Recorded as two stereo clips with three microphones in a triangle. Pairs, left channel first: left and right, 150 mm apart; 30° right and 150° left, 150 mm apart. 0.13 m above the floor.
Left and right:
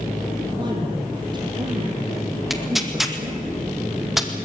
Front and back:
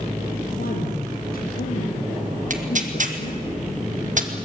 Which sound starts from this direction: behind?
Tearing paper, at 2.5 s.